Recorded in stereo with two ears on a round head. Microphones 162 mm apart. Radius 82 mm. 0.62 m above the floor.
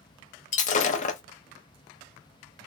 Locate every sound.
0.5 s breaking glass: 40° left (ahead or behind), 0.7 m